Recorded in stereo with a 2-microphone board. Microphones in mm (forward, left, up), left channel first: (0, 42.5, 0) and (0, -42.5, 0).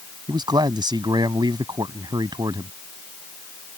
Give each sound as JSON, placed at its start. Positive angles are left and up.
{"t": 0.3, "sound": "a man speaking", "side_deg": -60}